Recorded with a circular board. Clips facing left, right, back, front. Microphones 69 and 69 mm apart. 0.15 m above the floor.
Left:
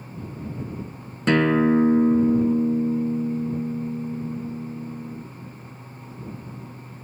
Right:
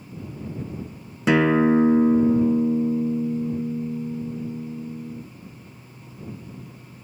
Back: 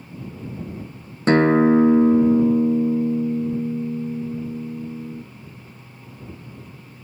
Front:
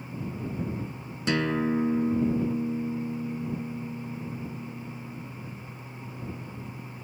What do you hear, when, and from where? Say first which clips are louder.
1.3 s a guitar: right 1 dB, back 12 dB; 170° right